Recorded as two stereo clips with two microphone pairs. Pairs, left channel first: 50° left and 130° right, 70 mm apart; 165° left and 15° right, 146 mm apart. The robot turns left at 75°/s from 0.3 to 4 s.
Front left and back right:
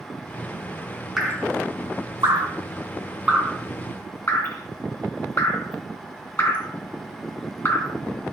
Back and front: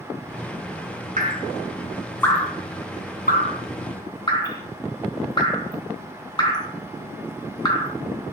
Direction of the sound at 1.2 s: 40° right.